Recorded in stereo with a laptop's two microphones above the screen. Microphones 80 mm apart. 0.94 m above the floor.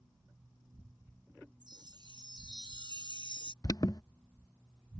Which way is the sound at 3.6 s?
55° left (ahead or behind).